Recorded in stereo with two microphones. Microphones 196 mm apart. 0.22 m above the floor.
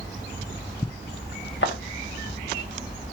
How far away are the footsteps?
About 0.9 m.